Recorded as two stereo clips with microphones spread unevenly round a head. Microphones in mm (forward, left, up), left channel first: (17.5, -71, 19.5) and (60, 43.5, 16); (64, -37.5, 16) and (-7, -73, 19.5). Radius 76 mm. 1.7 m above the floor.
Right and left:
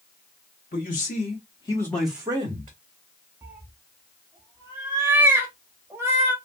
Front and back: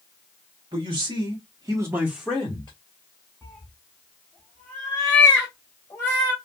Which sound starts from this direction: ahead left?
A cat meowing, at 3.4 s.